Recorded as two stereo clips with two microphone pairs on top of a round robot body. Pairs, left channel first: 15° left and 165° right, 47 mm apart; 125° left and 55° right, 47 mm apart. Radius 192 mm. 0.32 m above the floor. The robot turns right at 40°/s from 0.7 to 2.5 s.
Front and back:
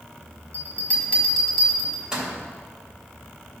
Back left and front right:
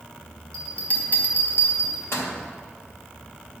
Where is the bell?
65° left, 2.5 m; by 2.3 s 130° left, 2.5 m.